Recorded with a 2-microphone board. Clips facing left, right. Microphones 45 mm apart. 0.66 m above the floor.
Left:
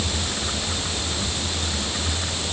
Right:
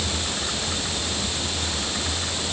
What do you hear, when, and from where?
Only background noise.